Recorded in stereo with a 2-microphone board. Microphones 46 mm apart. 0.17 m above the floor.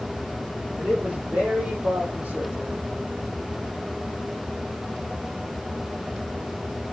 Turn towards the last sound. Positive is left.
turn(degrees=-40)  # may be behind; listen again after turning